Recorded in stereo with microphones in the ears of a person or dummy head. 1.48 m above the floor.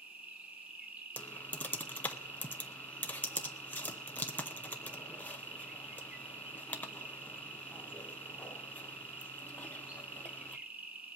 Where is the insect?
10° right (ahead or behind), 0.8 m.